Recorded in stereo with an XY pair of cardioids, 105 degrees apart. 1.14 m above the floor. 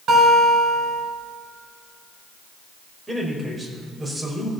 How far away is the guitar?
About 3.5 m.